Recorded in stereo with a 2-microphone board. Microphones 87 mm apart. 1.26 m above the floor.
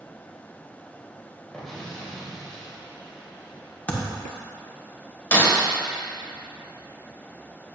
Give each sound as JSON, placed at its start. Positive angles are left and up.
{"t": 1.5, "sound": "an explosion", "side_deg": 5, "distance_m": 2.5}
{"t": 3.9, "sound": "a thud", "side_deg": 20, "distance_m": 1.8}
{"t": 5.3, "sound": "breaking glass", "side_deg": 20, "distance_m": 1.9}